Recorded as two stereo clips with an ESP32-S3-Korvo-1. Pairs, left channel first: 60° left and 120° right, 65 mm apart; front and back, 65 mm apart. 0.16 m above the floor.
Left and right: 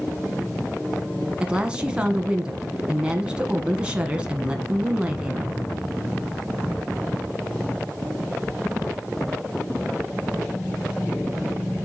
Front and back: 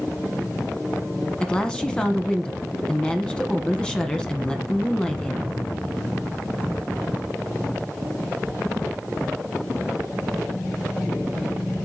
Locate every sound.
1.4 s a woman speaking: 65° right, 1.2 m